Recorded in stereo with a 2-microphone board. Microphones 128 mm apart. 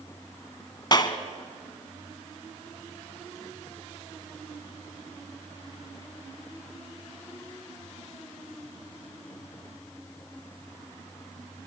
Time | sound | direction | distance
0.9 | a clap | 35° left (ahead or behind) | 1.3 m